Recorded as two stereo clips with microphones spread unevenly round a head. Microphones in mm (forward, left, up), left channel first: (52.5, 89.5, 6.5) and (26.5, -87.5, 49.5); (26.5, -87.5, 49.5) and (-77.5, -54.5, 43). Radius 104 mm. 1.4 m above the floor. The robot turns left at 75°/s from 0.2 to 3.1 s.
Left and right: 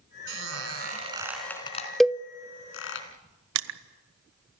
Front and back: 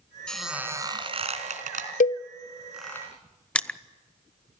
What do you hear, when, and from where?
0.3 s a squeak: 95° right, 3.5 m; by 3.0 s 60° left, 3.5 m
2.0 s a cowbell: 10° right, 0.7 m; by 2.2 s 25° right, 0.7 m
3.5 s crushing: 100° right, 0.9 m